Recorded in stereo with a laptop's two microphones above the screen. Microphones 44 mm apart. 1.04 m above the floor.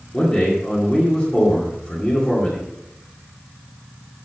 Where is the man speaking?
20° left (ahead or behind), 2 m.